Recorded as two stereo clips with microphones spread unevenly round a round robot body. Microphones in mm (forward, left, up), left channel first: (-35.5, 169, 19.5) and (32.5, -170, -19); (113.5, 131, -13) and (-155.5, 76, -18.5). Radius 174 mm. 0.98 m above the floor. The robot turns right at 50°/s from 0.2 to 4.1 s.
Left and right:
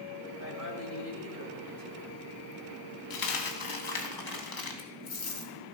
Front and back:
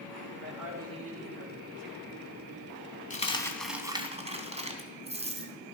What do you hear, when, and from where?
0.4 s a woman speaking: 135° right, 5.5 m; by 2.3 s 40° right, 5.5 m
3.1 s a dropped coin: 75° left, 3 m; by 5.5 s 125° left, 3 m